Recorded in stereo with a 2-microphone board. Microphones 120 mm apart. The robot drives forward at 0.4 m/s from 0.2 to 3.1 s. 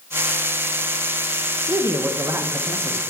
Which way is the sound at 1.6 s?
30° right (ahead or behind).